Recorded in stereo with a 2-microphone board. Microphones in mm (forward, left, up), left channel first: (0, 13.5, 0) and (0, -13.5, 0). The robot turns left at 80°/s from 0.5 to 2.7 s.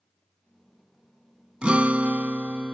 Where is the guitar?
50° right; by 2.7 s 140° right.